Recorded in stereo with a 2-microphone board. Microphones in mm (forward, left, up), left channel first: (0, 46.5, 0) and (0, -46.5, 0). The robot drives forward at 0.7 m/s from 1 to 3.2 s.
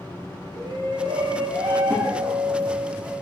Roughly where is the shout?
Right.